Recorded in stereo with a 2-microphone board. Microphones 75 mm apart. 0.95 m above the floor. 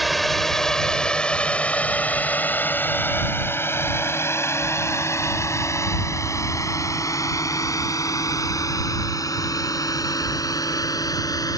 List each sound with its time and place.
0.0 s a drone: centre (ahead or behind); by 11.6 s 55° left (ahead or behind)